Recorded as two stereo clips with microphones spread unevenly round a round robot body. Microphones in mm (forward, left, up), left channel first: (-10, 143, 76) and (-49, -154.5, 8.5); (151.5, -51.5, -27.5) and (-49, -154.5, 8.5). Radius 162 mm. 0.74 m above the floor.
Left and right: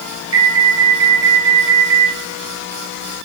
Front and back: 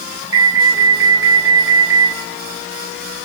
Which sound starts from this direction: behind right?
An alarm, at 0.3 s.